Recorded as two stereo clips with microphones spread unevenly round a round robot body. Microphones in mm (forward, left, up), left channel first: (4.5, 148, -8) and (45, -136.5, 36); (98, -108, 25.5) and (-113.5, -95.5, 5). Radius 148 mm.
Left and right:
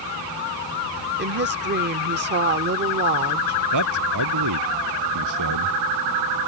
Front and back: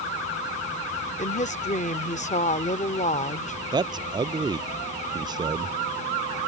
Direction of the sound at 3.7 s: 115° right.